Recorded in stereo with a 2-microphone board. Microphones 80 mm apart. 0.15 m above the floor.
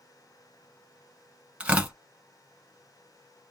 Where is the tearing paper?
15° right (ahead or behind), 0.9 m.